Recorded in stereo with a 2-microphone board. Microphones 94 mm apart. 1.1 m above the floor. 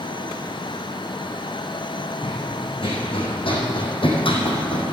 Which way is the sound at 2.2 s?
75° left (ahead or behind).